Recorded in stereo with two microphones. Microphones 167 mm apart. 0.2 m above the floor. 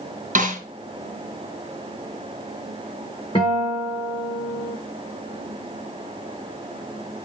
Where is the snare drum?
50° right (ahead or behind), 2.5 m.